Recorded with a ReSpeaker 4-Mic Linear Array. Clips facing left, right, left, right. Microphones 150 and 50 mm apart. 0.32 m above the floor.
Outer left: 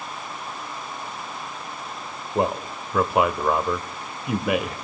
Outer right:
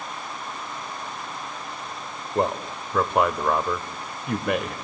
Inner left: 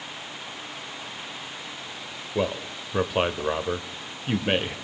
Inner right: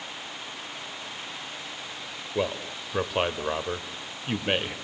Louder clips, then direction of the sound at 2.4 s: Outer left 1 dB, inner left 2 dB; 5° left (ahead or behind).